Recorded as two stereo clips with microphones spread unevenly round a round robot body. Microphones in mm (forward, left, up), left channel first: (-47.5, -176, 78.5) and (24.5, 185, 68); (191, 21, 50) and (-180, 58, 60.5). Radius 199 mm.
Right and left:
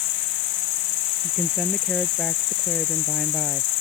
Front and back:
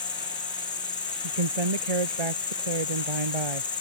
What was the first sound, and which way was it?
An insect, 85° right.